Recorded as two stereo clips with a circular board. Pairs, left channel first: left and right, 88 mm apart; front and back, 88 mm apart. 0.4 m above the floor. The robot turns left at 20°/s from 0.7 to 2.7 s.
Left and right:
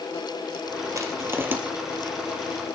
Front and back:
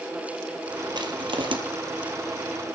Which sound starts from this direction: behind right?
Crushing, at 0.9 s.